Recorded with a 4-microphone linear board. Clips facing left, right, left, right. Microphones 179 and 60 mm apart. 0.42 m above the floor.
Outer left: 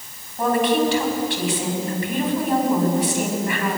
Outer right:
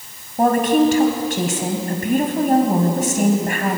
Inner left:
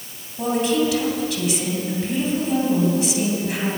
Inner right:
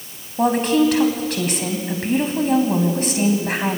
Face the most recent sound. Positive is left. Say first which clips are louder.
# outer right 4 dB, inner right 4 dB
turn(degrees=-50)  # may be behind; listen again after turning